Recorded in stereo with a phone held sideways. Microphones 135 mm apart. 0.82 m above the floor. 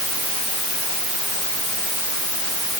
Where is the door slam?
I don't hear a door slam.